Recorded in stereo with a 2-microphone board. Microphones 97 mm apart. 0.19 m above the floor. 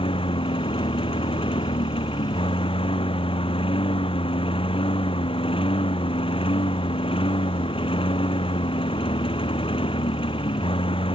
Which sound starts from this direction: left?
A lawn mower, at 0.0 s.